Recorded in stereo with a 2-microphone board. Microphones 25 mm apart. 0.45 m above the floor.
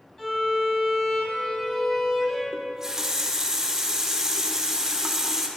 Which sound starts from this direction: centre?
A running tap, at 2.5 s.